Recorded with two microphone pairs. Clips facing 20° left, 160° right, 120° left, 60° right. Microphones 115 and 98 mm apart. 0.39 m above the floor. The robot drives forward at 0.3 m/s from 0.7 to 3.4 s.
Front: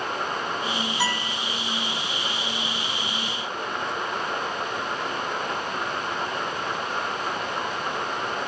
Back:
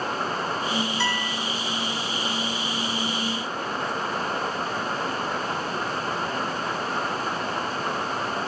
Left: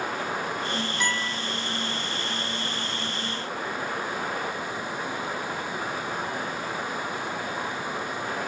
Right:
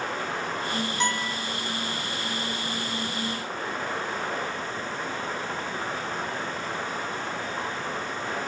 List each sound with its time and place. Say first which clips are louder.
1.0 s a guitar: even, right 3 dB; 45° right, 1.3 m; by 1.3 s 50° right, 1.3 m